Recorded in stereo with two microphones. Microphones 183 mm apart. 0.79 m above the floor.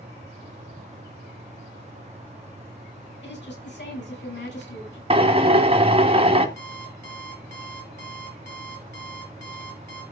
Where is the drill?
30° right (ahead or behind), 1.4 m.